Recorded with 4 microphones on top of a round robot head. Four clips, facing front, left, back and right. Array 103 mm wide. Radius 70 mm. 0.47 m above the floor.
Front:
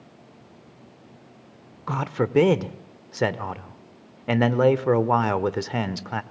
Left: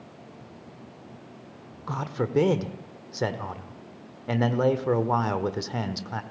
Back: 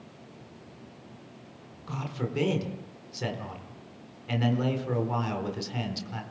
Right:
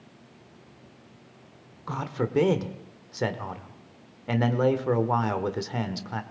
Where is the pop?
I don't hear a pop.